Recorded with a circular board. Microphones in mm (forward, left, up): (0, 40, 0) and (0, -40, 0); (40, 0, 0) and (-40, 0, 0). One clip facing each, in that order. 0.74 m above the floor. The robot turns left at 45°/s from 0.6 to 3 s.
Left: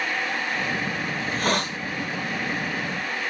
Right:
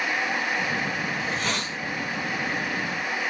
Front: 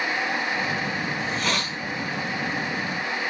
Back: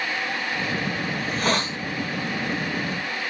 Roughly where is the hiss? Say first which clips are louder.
Left 3 dB, back 2 dB; behind left.